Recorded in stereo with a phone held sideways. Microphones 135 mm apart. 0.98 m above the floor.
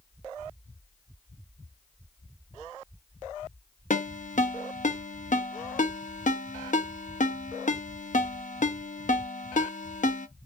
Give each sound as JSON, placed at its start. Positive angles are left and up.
{"t": 3.9, "sound": "a ringtone", "side_deg": 65, "distance_m": 0.6}